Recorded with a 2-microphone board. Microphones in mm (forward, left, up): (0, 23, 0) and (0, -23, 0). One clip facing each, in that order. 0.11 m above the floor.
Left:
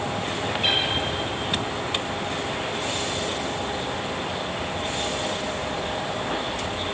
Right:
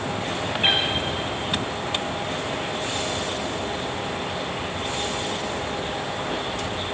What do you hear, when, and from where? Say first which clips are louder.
0.6 s a cat meowing: right 3 dB; 30° right (ahead or behind), 4.5 m